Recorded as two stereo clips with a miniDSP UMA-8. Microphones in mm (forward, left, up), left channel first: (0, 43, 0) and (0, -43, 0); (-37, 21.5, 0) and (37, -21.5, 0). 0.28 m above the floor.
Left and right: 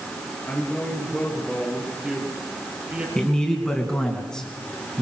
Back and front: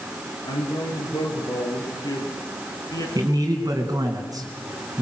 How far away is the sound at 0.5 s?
About 6.5 m.